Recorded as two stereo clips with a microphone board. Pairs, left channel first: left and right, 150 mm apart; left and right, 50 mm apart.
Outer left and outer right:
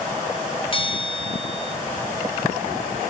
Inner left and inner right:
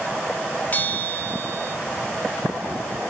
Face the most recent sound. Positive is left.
turn(degrees=35)  # may be behind; listen again after turning